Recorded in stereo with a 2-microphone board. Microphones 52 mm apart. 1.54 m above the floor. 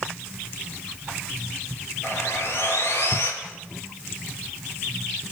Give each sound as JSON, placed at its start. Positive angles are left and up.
{"t": 2.0, "sound": "sawing", "side_deg": 65, "distance_m": 6.5}